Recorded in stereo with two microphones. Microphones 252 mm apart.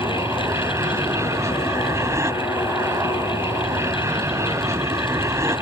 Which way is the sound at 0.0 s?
10° right (ahead or behind).